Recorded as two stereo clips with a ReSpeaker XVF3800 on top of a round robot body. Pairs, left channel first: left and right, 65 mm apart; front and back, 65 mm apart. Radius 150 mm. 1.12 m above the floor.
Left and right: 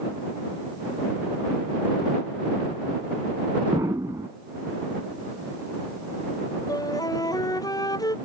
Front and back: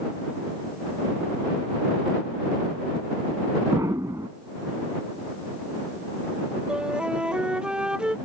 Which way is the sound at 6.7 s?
105° left.